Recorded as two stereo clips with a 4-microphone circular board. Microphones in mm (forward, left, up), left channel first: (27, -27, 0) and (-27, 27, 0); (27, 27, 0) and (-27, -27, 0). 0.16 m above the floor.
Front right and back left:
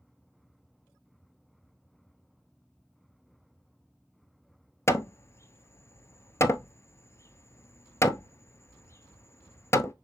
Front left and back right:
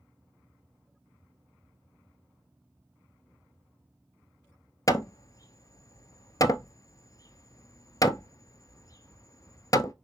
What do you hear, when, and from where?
4.9 s hammering: 5° left, 0.7 m